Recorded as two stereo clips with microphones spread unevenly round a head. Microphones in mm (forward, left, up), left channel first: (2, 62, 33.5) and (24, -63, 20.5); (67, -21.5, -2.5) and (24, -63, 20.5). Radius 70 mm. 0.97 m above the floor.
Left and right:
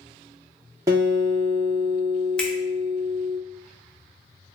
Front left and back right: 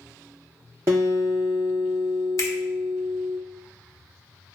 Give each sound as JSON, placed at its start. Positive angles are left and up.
{"t": 0.9, "sound": "a guitar", "azimuth_deg": -150, "distance_m": 0.7}
{"t": 2.4, "sound": "a finger snap", "azimuth_deg": 15, "distance_m": 0.7}